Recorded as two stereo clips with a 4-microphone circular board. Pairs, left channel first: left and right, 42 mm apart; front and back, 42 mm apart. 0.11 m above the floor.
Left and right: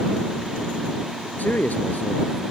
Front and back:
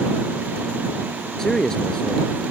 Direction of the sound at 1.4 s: 70° left.